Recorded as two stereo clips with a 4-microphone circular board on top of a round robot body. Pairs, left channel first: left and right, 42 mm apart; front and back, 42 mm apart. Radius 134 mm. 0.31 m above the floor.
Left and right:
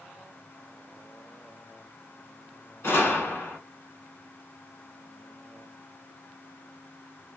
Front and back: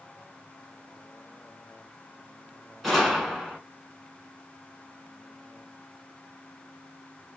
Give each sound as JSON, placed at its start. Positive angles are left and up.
{"t": 2.8, "sound": "a gunshot", "azimuth_deg": 85, "distance_m": 1.7}